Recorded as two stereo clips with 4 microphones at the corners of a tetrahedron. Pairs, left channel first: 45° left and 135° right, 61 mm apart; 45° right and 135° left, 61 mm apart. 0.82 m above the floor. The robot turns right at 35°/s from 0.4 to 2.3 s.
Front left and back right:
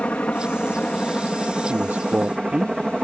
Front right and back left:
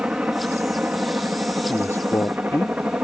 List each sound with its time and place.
0.0 s a helicopter: 85° left; by 3.0 s 150° left
1.7 s a man speaking: 90° right; by 2.8 s 70° right